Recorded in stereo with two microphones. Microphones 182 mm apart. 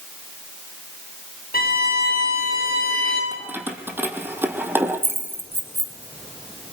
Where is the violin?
55° left (ahead or behind), 10 m.